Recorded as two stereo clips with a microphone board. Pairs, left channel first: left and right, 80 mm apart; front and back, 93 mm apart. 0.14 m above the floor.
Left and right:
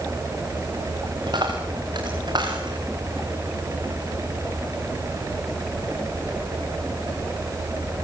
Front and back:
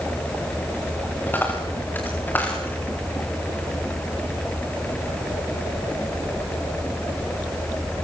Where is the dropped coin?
70° right, 9 m.